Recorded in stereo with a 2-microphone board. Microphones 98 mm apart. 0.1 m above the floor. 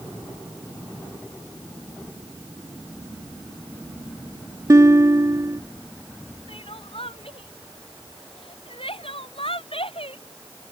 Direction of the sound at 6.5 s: 70° left (ahead or behind).